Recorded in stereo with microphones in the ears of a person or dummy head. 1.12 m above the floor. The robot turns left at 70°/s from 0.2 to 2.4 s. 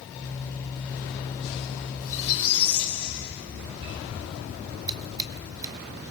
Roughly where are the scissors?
Centre.